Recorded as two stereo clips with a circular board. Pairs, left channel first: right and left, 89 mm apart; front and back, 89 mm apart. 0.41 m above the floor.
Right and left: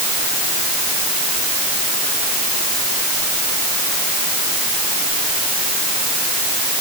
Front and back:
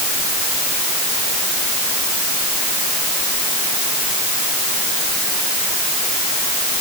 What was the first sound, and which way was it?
Only background noise.